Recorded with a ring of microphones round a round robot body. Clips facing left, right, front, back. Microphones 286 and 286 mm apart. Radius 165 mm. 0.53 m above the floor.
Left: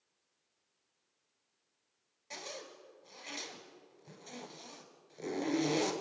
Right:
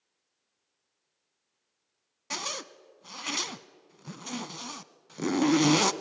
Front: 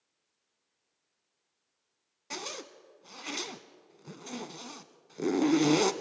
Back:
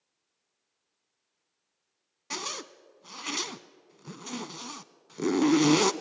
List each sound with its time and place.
2.3 s a zipper: 110° right, 0.8 m